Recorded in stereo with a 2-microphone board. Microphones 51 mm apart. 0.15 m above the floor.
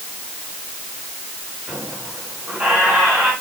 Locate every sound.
1.7 s a squeak: 25° right (ahead or behind), 9 m